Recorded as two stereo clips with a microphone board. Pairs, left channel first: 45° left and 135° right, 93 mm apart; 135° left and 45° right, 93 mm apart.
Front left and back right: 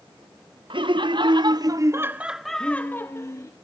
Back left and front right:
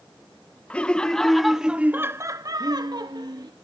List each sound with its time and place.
0.7 s laughter: 150° right, 1.3 m; by 3.5 s 5° right, 1.2 m